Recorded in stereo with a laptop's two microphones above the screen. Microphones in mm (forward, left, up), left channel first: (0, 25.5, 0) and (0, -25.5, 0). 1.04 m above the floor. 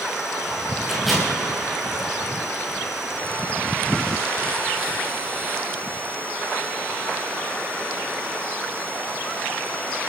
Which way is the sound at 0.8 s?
Centre (ahead or behind).